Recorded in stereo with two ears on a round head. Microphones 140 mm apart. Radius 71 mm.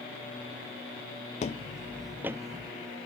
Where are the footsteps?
45° left (ahead or behind), 0.6 m; by 2.7 s 30° right (ahead or behind), 0.8 m.